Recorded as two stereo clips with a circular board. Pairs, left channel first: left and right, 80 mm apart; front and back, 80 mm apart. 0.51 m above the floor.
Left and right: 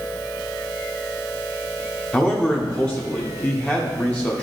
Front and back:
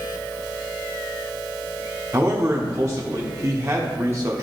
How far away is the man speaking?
About 0.8 m.